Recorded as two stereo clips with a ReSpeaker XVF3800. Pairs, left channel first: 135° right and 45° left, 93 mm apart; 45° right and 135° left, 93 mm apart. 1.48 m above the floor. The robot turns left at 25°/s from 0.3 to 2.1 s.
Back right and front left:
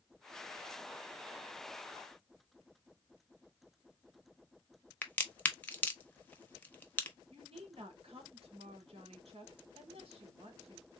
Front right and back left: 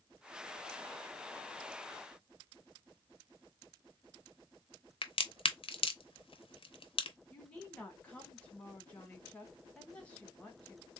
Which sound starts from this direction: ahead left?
A woman speaking, at 7.3 s.